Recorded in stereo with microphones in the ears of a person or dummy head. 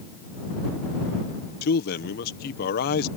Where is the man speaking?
55° left (ahead or behind).